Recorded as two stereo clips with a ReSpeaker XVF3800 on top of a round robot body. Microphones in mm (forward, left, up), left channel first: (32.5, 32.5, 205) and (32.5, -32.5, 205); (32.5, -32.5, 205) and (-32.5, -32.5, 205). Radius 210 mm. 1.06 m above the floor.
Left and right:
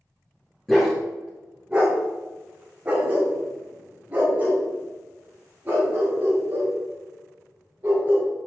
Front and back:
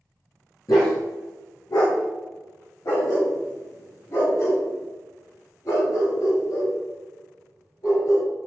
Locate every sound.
0.7 s a dog barking: 10° left, 0.7 m; by 8.3 s 30° right, 6.5 m